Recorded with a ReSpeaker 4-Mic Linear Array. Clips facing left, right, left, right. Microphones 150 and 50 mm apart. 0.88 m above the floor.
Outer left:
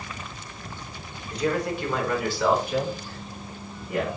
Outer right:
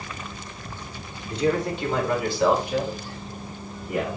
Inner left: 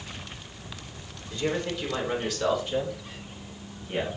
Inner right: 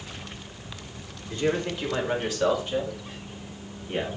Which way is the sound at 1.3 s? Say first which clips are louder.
Outer right 2 dB, inner right 2 dB; 30° right (ahead or behind).